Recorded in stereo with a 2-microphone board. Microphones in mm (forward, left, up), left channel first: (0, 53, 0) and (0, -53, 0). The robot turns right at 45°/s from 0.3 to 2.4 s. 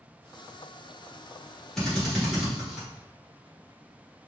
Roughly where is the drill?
Centre.